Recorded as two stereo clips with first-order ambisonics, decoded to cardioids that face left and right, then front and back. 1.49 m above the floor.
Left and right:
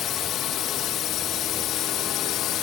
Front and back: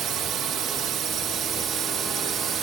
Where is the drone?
135° left; by 2.6 s 125° left.